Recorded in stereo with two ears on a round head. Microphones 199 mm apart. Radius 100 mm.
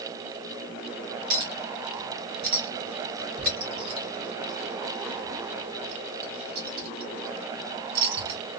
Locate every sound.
1.3 s a clink: 45° right (ahead or behind), 2.5 m